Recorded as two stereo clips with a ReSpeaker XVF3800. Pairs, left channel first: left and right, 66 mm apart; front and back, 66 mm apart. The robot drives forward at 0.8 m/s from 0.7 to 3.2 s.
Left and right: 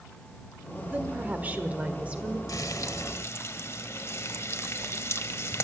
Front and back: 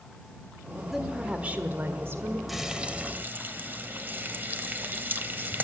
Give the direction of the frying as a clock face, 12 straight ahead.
9 o'clock.